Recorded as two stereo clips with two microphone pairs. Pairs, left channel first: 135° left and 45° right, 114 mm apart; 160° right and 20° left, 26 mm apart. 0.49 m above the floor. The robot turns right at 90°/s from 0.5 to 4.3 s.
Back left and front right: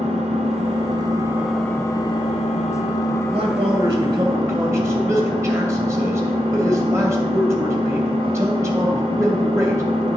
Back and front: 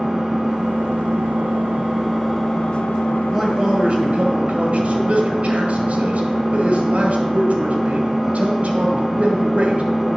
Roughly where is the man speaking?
Right.